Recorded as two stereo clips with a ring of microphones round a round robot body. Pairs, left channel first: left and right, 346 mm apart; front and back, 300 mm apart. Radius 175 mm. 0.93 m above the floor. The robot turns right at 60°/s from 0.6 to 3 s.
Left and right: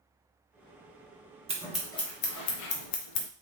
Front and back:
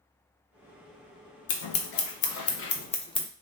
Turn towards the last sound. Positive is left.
turn(degrees=75)